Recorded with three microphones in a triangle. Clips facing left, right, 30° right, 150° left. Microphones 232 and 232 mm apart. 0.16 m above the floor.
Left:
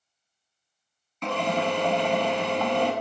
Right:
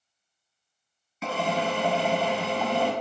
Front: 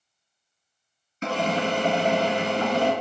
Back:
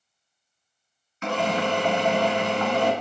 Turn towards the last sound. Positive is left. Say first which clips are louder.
# left 2 dB, even
turn(degrees=-10)